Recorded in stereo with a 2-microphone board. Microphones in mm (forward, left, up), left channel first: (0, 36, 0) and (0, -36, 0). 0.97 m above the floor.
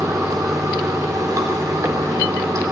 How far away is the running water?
About 2.5 m.